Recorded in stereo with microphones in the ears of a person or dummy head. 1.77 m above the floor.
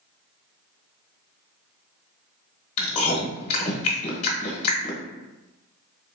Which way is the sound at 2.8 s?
35° left (ahead or behind).